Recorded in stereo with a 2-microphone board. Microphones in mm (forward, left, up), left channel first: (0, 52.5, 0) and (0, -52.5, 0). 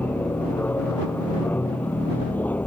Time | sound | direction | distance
0.0 | an aircraft | 15° left (ahead or behind) | ?